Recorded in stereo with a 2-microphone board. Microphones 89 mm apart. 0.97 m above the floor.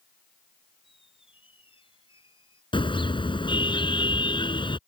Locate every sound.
0.8 s a squeak: 75° left (ahead or behind)
2.7 s a car horn: 65° left (ahead or behind)